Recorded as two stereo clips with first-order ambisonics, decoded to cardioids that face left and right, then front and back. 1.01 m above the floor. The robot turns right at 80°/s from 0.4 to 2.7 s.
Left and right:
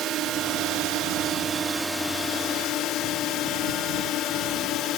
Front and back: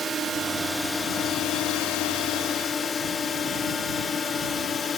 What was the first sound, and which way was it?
A drone, 120° right.